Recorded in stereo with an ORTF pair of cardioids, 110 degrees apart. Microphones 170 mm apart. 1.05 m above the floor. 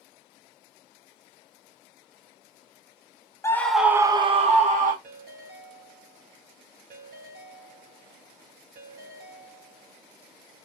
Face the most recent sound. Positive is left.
turn(degrees=-65)